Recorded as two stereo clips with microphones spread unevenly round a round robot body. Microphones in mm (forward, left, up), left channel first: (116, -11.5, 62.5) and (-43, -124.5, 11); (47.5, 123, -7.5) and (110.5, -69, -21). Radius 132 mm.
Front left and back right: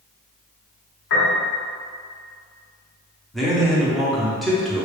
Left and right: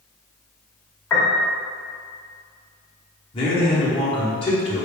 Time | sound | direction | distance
1.1 | a piano | 30° left | 1.2 m
3.3 | a man speaking | 155° left | 0.7 m